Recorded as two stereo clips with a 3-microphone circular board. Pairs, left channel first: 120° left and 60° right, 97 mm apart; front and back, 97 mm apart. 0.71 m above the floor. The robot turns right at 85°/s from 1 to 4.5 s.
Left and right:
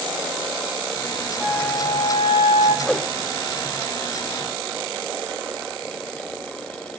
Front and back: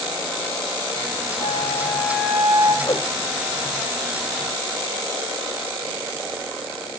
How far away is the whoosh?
About 0.7 m.